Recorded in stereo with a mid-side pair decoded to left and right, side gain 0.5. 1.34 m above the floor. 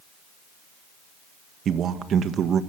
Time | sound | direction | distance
1.6 | a man speaking | 55° right | 1.5 m